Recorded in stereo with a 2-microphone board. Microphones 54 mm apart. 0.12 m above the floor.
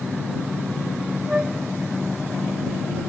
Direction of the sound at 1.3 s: 10° right (ahead or behind).